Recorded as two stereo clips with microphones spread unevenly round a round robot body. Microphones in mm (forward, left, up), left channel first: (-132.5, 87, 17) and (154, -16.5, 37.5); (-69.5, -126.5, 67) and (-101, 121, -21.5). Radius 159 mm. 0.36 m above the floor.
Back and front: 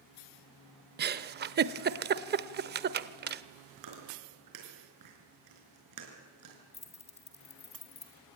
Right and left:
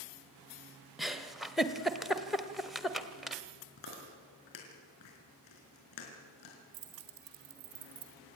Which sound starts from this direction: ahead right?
Chewing, at 3.8 s.